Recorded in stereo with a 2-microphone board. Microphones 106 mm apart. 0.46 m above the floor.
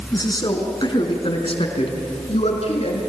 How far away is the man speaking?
About 4.5 m.